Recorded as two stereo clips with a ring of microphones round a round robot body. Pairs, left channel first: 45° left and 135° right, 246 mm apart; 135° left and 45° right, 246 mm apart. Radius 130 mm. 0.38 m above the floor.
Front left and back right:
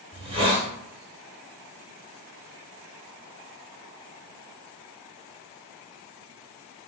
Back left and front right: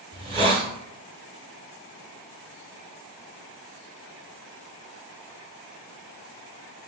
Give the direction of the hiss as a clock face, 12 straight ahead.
3 o'clock.